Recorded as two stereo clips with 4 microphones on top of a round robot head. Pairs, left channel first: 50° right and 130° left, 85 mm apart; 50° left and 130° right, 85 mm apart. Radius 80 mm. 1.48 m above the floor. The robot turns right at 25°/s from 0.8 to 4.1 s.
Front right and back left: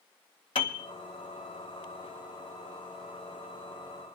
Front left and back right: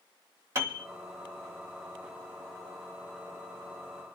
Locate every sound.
0.6 s a piano: 75° right, 1.8 m; by 0.8 s 70° right, 1.8 m